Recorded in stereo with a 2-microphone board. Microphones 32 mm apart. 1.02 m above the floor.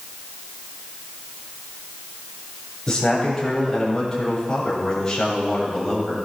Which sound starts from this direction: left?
A man speaking, at 2.9 s.